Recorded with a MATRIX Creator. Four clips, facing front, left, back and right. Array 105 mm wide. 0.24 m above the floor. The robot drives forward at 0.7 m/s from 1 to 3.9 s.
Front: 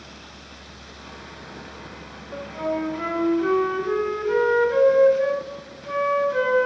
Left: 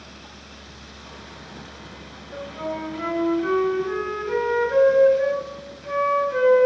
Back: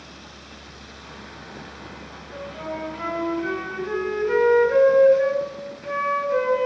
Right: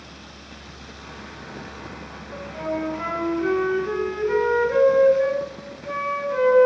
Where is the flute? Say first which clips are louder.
Right 2 dB, front 5 dB; 25° right, 1.1 m; by 6.7 s 160° right, 1.2 m.